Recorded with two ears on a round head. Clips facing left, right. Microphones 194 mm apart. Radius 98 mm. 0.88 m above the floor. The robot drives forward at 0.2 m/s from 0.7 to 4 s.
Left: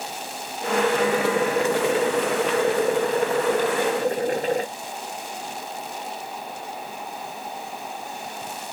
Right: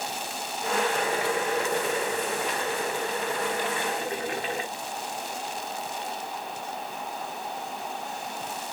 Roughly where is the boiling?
Left.